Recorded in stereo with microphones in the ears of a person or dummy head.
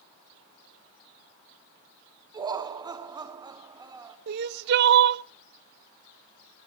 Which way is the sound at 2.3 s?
20° right (ahead or behind).